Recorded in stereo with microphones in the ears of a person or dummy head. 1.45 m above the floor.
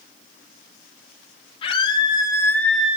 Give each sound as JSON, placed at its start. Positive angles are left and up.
{"t": 1.6, "sound": "a scream", "side_deg": 35, "distance_m": 2.5}